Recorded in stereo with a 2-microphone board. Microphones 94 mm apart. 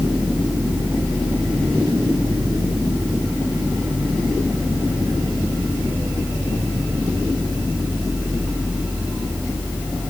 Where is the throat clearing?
No throat clearing in this recording.